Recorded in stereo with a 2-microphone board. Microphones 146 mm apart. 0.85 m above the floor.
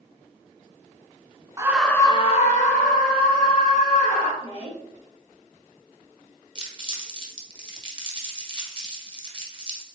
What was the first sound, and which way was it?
A scream, 20° right (ahead or behind).